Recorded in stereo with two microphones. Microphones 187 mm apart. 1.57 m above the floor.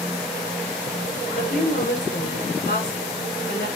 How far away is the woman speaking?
About 5.5 m.